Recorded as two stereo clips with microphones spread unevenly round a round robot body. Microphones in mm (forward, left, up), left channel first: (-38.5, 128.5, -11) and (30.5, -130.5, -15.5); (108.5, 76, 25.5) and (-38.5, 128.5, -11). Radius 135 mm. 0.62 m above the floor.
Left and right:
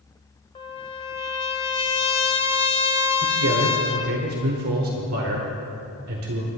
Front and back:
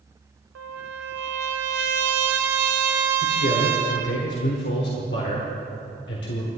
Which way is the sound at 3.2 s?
40° right.